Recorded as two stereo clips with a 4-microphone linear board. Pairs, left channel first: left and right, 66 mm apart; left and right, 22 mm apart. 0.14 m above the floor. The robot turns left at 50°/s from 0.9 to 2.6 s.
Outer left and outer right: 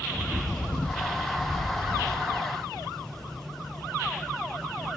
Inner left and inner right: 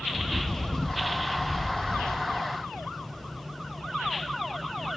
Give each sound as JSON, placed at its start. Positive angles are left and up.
{"t": 0.1, "sound": "a bird", "azimuth_deg": 160, "distance_m": 5.0}